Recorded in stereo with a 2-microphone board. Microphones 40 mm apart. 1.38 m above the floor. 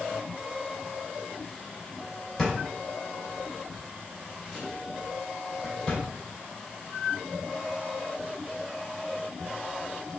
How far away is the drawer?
About 2.5 m.